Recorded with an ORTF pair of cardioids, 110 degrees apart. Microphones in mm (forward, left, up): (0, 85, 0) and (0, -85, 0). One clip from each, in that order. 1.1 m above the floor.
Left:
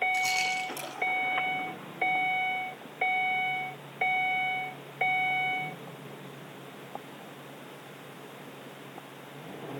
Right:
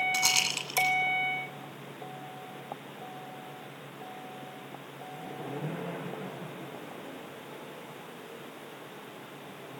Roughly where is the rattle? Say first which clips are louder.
Right 1 dB; ahead right.